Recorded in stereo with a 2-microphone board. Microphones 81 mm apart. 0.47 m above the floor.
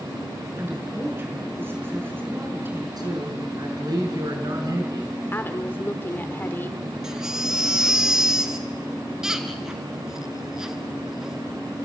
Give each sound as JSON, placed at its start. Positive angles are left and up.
{"t": 0.6, "sound": "a woman speaking", "side_deg": -30, "distance_m": 6.0}
{"t": 3.0, "sound": "a man speaking", "side_deg": -55, "distance_m": 6.5}
{"t": 5.3, "sound": "a woman speaking", "side_deg": 25, "distance_m": 1.4}
{"t": 7.0, "sound": "a baby crying", "side_deg": -5, "distance_m": 1.9}